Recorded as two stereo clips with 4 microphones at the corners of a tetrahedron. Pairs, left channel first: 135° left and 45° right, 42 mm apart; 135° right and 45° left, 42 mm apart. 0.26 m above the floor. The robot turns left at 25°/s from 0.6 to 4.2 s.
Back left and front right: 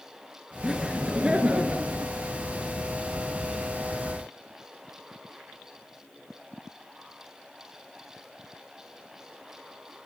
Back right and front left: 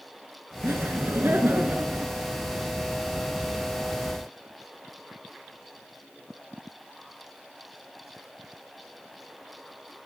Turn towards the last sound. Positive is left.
turn(degrees=-50)